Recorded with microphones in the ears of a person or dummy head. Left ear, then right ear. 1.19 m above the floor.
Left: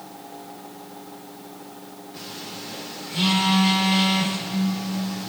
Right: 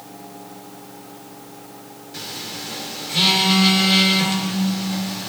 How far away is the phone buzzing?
About 2.5 m.